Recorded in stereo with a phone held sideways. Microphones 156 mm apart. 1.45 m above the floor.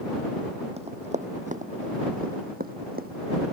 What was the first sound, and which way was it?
Running footsteps, 40° right (ahead or behind).